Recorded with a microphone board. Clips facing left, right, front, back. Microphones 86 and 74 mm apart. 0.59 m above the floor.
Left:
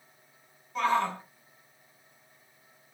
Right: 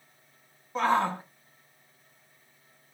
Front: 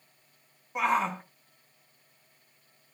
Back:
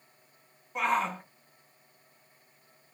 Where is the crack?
I don't hear a crack.